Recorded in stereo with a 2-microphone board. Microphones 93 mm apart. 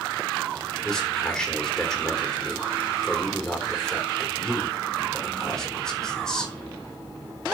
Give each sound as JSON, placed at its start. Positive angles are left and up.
{"t": 0.8, "sound": "a man speaking", "side_deg": 5, "distance_m": 4.0}